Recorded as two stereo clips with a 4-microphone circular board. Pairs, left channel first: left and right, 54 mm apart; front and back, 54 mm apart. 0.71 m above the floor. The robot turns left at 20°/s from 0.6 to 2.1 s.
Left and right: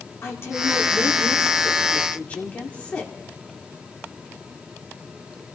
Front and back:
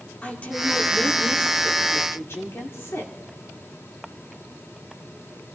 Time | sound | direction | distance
0.2 | a woman speaking | 60° left | 2 m